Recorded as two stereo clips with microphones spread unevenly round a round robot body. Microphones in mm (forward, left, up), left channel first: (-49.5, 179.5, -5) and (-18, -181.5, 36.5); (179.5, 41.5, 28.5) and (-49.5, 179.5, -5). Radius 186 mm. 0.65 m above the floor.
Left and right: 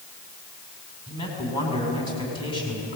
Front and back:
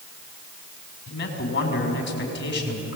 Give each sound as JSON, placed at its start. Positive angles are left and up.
{"t": 1.1, "sound": "a man speaking", "azimuth_deg": 15, "distance_m": 6.0}